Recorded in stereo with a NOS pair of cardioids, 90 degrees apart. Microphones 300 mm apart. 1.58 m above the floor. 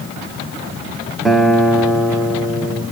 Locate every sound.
1.2 s a guitar: straight ahead, 0.9 m